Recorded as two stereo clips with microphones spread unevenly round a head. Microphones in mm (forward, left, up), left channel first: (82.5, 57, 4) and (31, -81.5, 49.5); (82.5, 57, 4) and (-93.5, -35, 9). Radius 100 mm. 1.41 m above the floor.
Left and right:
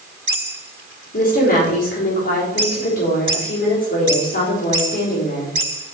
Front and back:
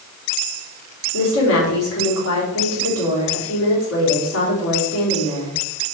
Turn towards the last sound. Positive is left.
turn(degrees=35)